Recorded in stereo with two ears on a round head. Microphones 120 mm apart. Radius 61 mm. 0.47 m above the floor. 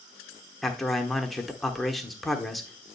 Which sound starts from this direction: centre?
A man speaking, at 0.6 s.